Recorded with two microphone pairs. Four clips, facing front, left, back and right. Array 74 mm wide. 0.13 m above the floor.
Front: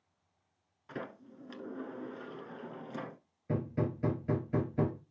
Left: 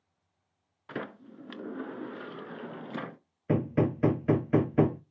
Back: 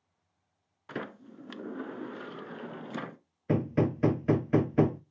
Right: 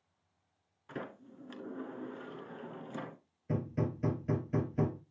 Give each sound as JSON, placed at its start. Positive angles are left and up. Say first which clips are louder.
{"t": 0.9, "sound": "a sliding door", "louder": "left 5 dB, back 4 dB", "azimuth_deg": 135, "distance_m": 0.8}
{"t": 3.5, "sound": "hammering", "louder": "left 8 dB, back 7 dB", "azimuth_deg": 130, "distance_m": 0.7}